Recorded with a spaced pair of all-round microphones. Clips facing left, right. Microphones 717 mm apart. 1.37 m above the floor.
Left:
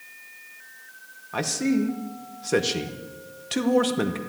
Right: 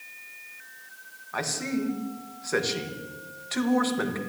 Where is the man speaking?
60° left (ahead or behind), 1.2 m.